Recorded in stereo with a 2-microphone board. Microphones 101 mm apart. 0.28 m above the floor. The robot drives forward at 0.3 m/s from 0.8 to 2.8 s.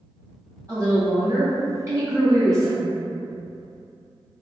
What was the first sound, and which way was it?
A woman speaking, 30° right (ahead or behind).